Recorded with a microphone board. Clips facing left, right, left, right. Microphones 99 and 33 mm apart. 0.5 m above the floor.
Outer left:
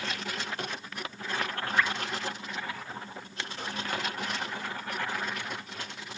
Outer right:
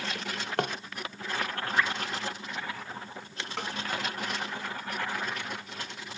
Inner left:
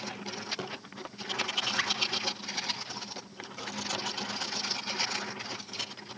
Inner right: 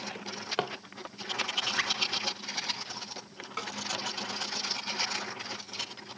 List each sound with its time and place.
0.1 s a drawer: 65° right (ahead or behind), 1.0 m
1.8 s dripping: 25° right (ahead or behind), 3 m
3.6 s a snare drum: 80° right, 3 m